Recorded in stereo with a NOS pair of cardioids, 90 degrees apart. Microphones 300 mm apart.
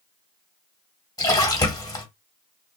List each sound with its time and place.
1.2 s a splash: 10° left, 1.4 m